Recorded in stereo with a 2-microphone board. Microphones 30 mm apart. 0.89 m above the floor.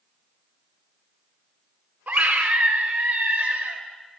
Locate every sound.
2.1 s a scream: 60° right (ahead or behind), 2.5 m